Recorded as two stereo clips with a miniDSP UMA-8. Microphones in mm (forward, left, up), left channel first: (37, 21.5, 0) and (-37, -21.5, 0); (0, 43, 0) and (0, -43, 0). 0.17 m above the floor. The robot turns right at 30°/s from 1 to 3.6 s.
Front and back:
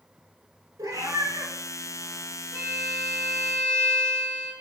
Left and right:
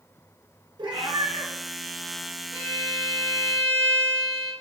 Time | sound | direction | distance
0.8 | a cat meowing | 110° right | 0.8 m
2.5 | a violin | 150° right | 1.5 m